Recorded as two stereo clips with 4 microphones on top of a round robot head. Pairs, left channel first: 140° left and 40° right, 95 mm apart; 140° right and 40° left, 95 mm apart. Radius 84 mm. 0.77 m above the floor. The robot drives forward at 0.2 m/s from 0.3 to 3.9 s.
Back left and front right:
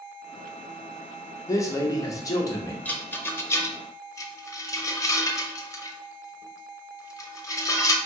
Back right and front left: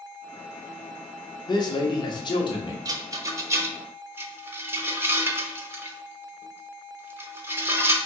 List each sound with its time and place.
1.5 s a man speaking: 170° right, 1.1 m; by 2.8 s 175° right, 1.3 m
2.9 s a rattle: 75° left, 0.8 m; by 8.0 s 95° left, 0.7 m